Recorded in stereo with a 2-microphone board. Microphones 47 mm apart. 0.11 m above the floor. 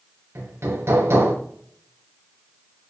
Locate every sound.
0.3 s hammering: 65° right (ahead or behind), 4 m